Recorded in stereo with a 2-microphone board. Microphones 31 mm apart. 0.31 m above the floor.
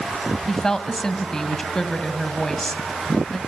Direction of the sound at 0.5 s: 15° left (ahead or behind).